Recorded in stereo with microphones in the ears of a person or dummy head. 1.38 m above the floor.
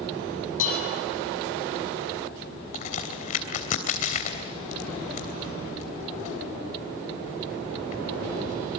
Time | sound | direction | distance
0.6 | dishes clattering | 45° left (ahead or behind) | 7.5 m
2.7 | a crack | 45° left (ahead or behind) | 3 m